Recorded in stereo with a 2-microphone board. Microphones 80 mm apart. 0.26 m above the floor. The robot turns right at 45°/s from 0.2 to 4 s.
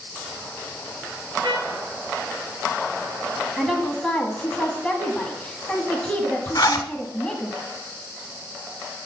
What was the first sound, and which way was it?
A trumpet, 80° right.